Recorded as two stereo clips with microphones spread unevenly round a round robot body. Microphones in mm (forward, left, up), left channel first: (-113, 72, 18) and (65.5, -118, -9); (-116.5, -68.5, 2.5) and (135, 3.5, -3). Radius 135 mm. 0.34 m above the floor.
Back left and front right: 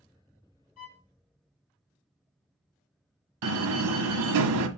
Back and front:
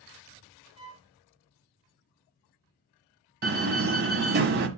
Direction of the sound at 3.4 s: 30° right.